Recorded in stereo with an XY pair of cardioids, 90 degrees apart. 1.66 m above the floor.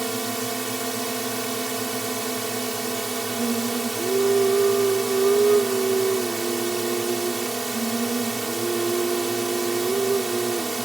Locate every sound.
0.0 s a drone: 20° right
3.4 s singing: 25° right